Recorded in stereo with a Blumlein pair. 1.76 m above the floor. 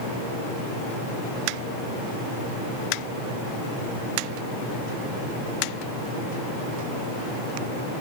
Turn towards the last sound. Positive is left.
No sound to turn to.